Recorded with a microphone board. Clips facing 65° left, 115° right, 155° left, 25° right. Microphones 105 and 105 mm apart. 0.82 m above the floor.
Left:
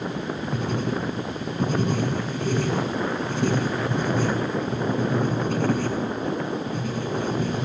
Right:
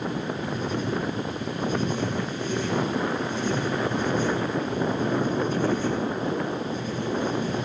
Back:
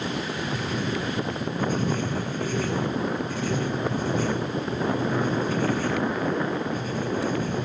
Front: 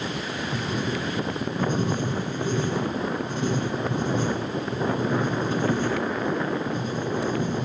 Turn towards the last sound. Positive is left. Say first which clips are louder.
# left 2 dB, front 1 dB
turn(degrees=45)